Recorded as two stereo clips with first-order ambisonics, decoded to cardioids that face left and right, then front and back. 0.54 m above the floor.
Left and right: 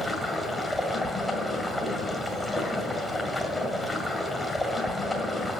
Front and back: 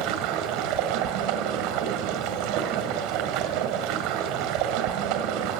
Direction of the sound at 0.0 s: 175° left.